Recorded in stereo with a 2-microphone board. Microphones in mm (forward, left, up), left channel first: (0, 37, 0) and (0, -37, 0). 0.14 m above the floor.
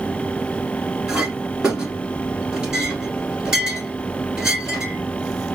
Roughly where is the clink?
Centre.